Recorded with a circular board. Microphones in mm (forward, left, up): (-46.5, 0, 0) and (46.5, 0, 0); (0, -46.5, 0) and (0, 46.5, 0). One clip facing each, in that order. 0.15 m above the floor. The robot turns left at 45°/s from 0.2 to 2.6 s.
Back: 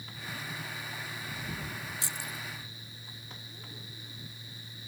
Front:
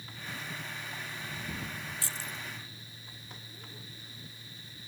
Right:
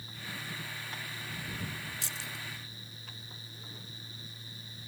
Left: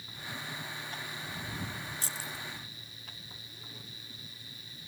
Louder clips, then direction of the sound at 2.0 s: Back 1 dB, left 2 dB; 115° left.